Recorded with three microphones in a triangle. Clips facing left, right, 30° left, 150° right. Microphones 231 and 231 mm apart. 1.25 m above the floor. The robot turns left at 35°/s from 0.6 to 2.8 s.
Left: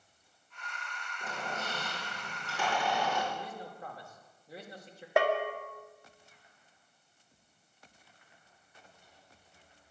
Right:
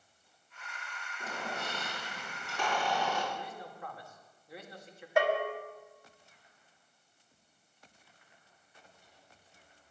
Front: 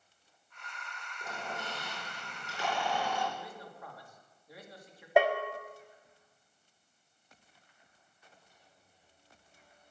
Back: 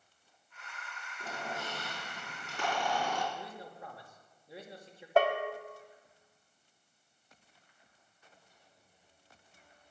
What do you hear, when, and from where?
1.2 s a squeak: 135° right, 5 m; by 3.2 s 170° left, 5 m
3.3 s a man speaking: 145° left, 2.5 m
5.2 s a bell: 105° left, 1.3 m